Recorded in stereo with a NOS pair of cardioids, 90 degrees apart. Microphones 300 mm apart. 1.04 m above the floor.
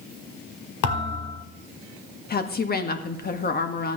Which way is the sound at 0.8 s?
60° left.